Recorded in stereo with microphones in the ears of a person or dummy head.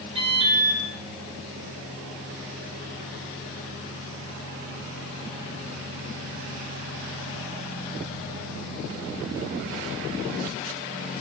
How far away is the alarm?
About 7.5 m.